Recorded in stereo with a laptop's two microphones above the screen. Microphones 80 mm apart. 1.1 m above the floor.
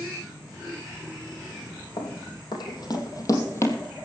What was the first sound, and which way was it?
Running footsteps, 70° left (ahead or behind).